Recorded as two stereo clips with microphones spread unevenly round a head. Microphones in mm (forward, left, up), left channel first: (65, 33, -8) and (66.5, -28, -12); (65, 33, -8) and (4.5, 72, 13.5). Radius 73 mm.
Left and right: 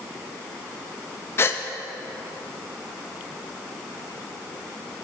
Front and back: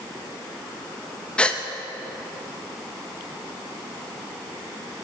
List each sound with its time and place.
1.4 s a gasp: 50° left, 0.5 m